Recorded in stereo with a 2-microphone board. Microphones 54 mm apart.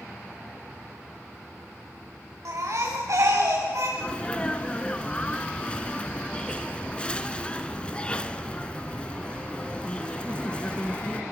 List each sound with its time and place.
2.5 s a baby crying: 60° right (ahead or behind), 5.5 m
4.0 s a sneeze: 20° left (ahead or behind), 1.1 m